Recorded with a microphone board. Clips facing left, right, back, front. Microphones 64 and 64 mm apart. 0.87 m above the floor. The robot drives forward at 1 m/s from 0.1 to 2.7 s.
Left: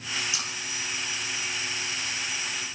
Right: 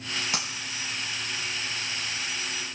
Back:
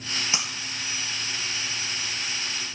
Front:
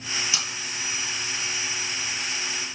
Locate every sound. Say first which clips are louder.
0.3 s breaking glass: right 2 dB, back 1 dB; 125° right, 4 m